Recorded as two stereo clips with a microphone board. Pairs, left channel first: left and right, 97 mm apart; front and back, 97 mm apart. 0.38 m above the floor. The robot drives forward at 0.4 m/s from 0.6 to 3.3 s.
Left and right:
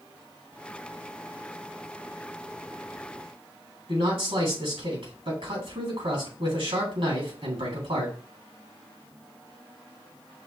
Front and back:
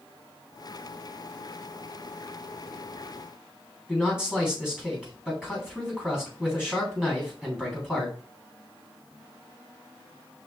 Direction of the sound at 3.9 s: 100° right.